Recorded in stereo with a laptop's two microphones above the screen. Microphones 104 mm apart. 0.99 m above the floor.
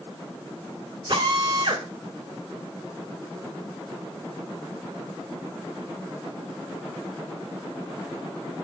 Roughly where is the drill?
Right.